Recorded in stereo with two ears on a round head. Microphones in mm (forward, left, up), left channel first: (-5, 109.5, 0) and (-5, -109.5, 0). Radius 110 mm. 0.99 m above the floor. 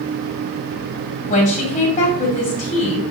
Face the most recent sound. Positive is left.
turn(degrees=35)  # may be behind; listen again after turning